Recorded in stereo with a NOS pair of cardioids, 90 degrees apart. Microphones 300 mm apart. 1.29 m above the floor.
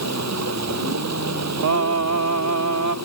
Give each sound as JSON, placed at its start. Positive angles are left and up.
{"t": 0.0, "sound": "running water", "azimuth_deg": -55}
{"t": 1.6, "sound": "singing", "azimuth_deg": -65}